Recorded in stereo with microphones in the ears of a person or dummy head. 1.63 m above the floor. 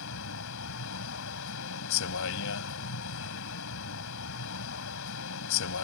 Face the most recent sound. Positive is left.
turn(degrees=70)  # may be behind; listen again after turning